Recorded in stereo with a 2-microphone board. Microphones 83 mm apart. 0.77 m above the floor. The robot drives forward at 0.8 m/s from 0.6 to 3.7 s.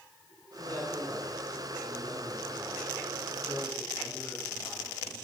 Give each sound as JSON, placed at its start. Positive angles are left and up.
{"t": 0.6, "sound": "a man speaking", "side_deg": 25, "distance_m": 8.0}